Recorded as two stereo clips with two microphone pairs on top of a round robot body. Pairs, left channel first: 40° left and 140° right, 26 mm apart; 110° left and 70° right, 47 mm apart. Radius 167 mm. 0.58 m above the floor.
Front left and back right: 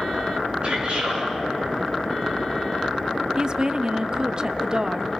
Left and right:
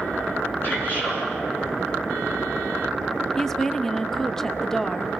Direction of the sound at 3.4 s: 165° right.